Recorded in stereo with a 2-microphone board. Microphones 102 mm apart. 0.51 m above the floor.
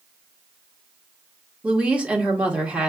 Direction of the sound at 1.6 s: 10° right (ahead or behind).